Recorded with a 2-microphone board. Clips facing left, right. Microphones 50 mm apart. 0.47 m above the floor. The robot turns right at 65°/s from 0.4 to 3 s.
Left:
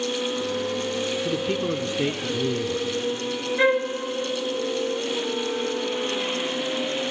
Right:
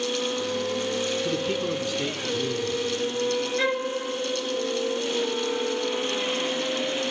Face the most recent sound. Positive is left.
turn(degrees=25)  # may be behind; listen again after turning